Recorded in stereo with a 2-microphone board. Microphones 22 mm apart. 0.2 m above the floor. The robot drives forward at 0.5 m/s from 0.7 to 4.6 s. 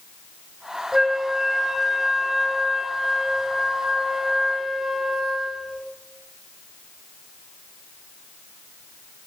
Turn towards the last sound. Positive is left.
turn(degrees=-10)  # may be behind; listen again after turning